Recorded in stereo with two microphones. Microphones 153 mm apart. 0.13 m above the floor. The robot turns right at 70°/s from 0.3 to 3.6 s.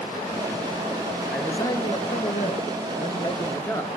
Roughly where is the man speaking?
Ahead.